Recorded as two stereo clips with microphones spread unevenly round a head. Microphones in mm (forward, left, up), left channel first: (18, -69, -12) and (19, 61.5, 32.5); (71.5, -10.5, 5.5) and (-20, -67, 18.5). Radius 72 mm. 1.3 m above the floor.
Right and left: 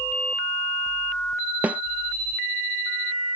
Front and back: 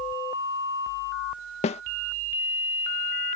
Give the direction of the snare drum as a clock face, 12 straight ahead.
12 o'clock.